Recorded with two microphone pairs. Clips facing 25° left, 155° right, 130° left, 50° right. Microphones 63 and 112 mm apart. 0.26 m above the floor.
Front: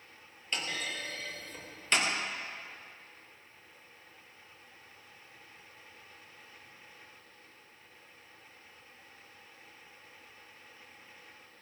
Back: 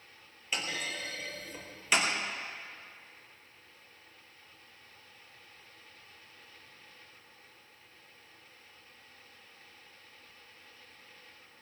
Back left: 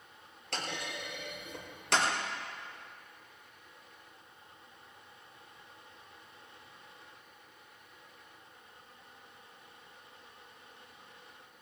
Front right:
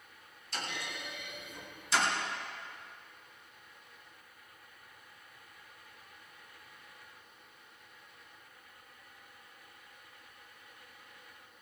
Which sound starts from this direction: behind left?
A clunk, at 0.5 s.